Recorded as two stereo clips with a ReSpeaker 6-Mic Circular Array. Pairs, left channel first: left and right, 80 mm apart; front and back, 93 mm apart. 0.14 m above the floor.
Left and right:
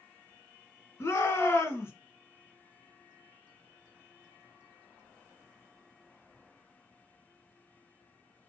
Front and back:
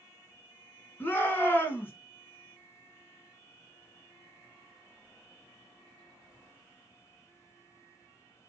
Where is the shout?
55° left, 1.7 m.